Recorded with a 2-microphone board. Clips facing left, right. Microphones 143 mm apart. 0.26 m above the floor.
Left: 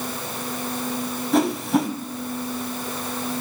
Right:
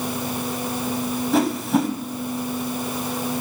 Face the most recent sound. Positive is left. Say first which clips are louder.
# left 1 dB
turn(degrees=0)  # may be behind; listen again after turning